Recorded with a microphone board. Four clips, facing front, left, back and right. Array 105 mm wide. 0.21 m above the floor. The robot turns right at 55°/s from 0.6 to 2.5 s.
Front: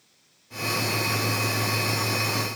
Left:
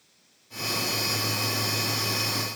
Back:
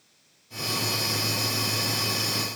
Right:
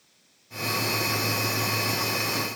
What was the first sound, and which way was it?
Only background noise.